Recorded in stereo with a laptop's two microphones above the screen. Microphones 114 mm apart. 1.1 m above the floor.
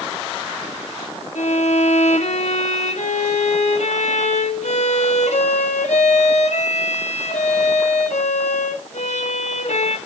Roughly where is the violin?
Left.